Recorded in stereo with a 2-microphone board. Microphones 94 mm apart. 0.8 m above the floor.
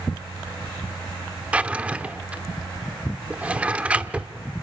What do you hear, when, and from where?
1.5 s a drawer: 15° right (ahead or behind), 0.9 m